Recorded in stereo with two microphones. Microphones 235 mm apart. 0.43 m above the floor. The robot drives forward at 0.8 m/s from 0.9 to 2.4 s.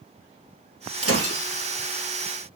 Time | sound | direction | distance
1.0 | breaking glass | 85° right | 2 m